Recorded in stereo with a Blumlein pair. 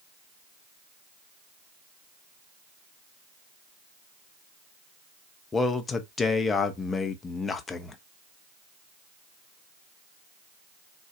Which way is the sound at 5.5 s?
15° left.